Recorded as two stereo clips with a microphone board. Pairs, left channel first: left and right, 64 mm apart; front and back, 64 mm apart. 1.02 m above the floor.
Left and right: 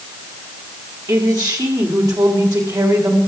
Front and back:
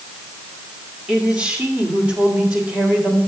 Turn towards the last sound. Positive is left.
turn(degrees=-105)